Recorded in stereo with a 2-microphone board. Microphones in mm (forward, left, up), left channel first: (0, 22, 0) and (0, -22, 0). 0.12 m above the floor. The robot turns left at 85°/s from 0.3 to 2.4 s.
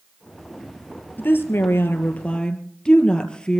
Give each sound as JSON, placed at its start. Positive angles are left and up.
{"t": 1.2, "sound": "a woman speaking", "azimuth_deg": 125, "distance_m": 2.5}